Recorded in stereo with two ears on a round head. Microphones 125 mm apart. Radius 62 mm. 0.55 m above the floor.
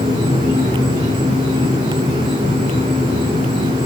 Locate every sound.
0.0 s an insect: 55° right (ahead or behind), 4.5 m